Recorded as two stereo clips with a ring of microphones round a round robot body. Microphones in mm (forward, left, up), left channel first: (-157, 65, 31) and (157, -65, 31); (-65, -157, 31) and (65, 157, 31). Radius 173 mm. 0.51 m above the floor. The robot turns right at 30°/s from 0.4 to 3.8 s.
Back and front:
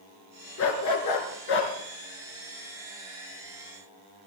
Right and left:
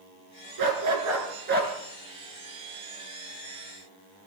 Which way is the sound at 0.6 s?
105° left.